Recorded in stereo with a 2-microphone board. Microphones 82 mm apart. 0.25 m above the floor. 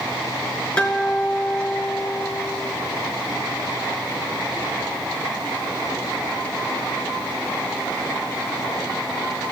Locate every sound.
0.8 s a guitar: 15° left (ahead or behind), 2 m